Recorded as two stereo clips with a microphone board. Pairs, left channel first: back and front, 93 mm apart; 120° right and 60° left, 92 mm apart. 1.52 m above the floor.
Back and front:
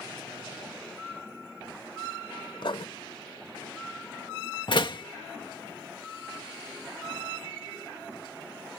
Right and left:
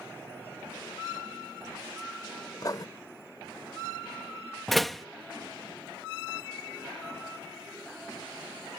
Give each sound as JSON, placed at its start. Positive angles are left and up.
{"t": 2.6, "sound": "writing", "azimuth_deg": -165}
{"t": 4.7, "sound": "a door slam", "azimuth_deg": 150}